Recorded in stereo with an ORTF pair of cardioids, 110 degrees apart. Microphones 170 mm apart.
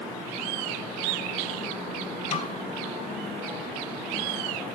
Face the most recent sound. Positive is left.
turn(degrees=45)